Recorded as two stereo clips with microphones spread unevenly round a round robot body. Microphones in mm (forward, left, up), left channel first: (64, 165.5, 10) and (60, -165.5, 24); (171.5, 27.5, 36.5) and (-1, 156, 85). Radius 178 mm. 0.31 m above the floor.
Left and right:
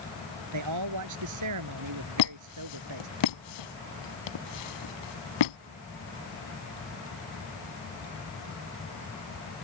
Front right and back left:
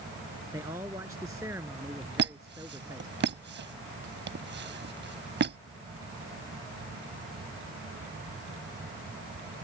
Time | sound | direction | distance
0.5 | a man speaking | 135° right | ?
2.2 | a squeak | 95° left | ?